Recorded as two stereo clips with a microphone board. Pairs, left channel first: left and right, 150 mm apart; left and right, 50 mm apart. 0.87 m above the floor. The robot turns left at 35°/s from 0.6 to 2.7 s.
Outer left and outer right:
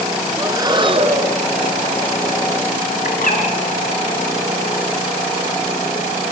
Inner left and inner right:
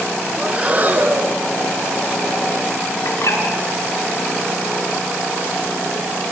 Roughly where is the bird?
Left.